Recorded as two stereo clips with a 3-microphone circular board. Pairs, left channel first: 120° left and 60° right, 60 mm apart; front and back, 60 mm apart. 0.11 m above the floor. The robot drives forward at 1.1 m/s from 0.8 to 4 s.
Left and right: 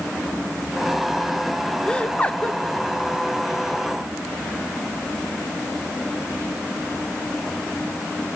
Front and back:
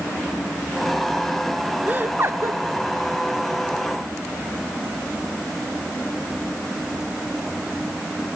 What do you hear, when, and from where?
1.9 s laughter: 170° left, 1.2 m; by 2.6 s 175° left, 1.7 m